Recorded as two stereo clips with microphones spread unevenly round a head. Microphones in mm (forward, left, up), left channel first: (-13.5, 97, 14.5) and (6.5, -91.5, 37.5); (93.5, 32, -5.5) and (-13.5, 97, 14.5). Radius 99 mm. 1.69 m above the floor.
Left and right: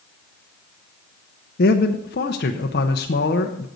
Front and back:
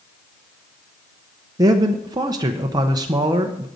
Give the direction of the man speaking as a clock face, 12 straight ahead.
8 o'clock.